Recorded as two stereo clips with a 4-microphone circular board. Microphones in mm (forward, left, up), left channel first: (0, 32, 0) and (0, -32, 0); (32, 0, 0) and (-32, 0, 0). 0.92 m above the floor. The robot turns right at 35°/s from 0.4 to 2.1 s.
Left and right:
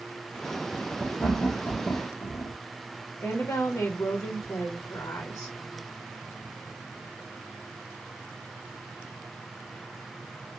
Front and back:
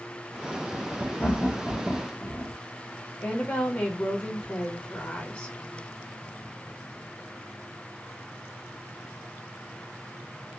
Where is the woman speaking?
55° left, 0.8 m.